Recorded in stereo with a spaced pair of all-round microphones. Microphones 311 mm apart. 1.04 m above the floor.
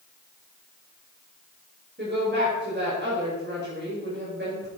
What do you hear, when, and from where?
2.0 s a woman speaking: 35° right (ahead or behind), 5 m